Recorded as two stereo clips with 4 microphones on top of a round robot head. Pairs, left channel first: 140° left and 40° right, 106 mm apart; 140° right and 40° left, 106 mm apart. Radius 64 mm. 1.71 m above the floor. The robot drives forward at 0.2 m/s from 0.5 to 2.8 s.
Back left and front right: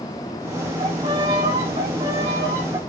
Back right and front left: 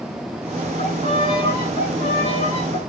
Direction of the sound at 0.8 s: 95° right.